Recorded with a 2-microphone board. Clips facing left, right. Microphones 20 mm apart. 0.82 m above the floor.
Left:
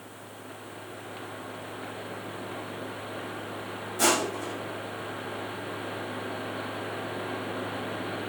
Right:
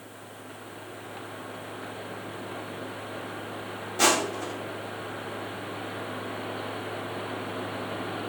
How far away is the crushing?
About 1.6 m.